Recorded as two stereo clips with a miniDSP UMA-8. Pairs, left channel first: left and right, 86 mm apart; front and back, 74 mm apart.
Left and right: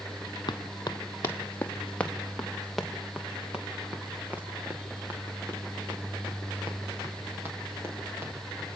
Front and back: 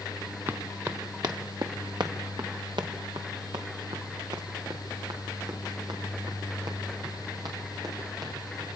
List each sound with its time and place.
0.5 s running footsteps: 125° left, 2 m; by 8.7 s 150° right, 9 m